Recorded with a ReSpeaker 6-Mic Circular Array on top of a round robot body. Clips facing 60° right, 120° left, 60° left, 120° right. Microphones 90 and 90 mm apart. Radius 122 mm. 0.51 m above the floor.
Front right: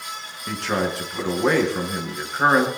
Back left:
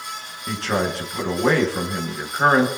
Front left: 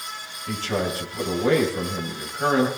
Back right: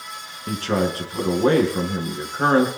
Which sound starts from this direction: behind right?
A man speaking, at 0.5 s.